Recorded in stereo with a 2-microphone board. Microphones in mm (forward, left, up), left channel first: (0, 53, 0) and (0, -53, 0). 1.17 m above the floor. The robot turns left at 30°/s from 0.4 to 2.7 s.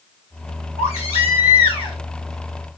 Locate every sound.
0.8 s a baby crying: 85° left, 1.9 m; by 2.0 s 50° left, 1.9 m